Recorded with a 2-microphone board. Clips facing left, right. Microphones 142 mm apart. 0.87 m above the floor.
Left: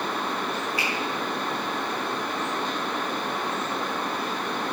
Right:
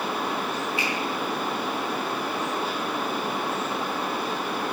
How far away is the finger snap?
About 6.5 m.